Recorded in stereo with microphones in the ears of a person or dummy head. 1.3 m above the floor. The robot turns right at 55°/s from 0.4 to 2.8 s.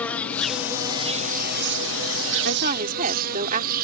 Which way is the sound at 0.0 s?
175° left.